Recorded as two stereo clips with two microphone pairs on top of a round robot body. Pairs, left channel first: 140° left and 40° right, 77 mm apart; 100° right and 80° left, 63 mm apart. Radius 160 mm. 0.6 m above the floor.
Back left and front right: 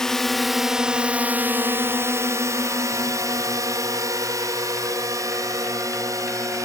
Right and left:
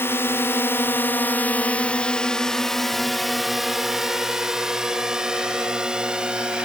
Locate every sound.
0.0 s a drone: 140° right; by 6.7 s 5° left